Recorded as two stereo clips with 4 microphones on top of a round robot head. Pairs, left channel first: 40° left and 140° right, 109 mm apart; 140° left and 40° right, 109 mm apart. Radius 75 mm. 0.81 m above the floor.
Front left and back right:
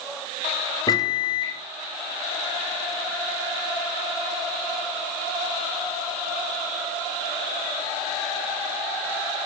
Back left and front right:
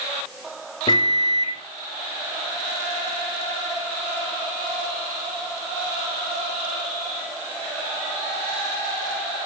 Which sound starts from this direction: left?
A microwave, at 0.9 s.